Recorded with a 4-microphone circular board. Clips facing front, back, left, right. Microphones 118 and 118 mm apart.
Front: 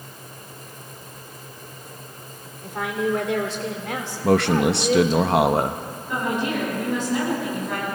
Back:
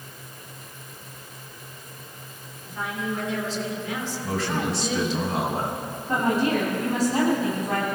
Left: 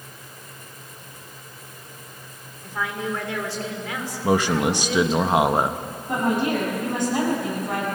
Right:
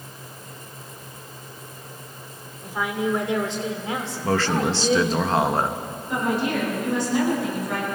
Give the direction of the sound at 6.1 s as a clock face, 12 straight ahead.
8 o'clock.